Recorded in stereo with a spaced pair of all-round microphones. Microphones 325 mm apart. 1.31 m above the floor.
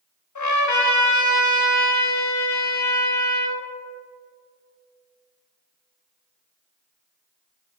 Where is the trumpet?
60° left (ahead or behind), 0.5 m.